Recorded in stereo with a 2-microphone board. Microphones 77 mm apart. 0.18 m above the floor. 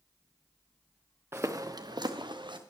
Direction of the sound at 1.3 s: 30° right (ahead or behind).